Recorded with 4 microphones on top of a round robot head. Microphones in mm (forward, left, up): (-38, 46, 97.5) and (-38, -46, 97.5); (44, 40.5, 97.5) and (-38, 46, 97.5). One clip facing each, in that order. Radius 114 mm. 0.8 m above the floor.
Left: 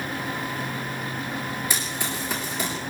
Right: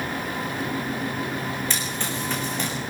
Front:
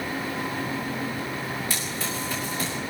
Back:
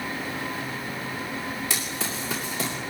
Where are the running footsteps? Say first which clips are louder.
Right 1 dB, even; 170° left, 6 m.